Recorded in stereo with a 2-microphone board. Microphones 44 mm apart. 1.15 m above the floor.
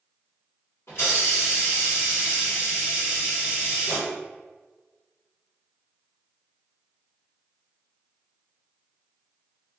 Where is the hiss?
65° left (ahead or behind), 1.7 m.